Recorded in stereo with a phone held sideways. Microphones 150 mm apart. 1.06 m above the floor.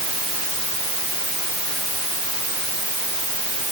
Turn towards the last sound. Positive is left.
No sound to turn to.